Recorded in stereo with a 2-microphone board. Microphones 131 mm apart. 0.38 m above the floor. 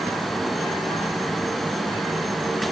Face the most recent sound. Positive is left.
No sound to turn to.